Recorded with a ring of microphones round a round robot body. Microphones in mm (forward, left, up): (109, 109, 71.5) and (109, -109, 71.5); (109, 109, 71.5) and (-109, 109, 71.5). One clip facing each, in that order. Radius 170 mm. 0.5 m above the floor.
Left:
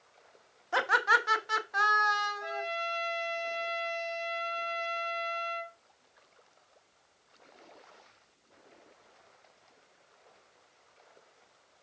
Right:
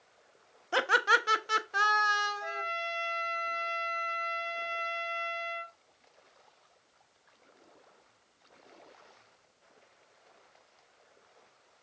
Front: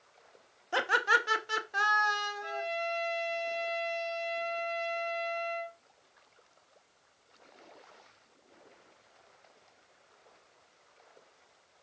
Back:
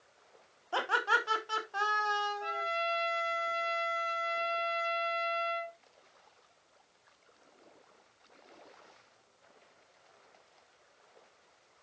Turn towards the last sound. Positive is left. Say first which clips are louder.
# left 3 dB, front 1 dB
turn(degrees=175)